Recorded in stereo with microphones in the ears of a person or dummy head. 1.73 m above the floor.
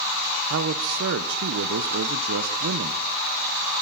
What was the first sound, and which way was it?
A man speaking, 65° right (ahead or behind).